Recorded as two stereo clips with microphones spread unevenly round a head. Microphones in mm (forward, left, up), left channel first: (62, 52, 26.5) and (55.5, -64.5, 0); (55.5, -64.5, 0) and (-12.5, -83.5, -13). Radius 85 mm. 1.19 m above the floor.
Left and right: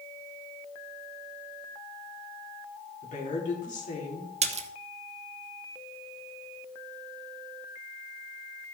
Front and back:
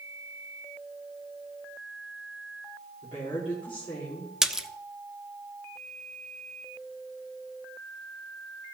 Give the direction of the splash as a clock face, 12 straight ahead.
3 o'clock.